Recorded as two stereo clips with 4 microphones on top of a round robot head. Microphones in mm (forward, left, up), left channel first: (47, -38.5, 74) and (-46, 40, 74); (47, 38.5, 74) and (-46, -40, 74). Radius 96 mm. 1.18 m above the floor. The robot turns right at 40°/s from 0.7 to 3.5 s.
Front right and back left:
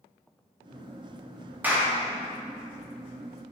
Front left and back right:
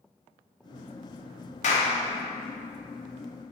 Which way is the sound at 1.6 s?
65° left.